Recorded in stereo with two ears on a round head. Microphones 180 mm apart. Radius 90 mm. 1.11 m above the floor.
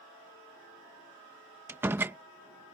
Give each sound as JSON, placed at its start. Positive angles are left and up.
{"t": 1.7, "sound": "a door slam", "side_deg": -10}